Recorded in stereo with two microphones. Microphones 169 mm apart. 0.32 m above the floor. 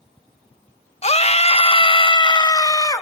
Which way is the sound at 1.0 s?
40° left (ahead or behind).